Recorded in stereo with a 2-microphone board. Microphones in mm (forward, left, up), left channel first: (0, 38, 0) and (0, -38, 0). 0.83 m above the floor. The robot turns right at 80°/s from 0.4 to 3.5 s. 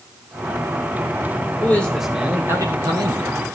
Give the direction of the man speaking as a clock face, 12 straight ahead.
7 o'clock.